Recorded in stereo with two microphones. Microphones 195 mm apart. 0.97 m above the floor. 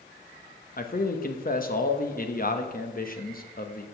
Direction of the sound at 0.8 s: 45° left (ahead or behind).